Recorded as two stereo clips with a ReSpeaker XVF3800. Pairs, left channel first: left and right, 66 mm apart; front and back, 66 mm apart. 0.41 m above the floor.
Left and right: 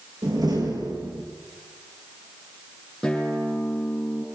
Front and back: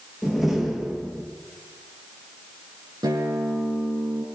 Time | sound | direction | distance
0.2 | a door slam | 90° right | 6.5 m
3.0 | a guitar | 170° left | 9.5 m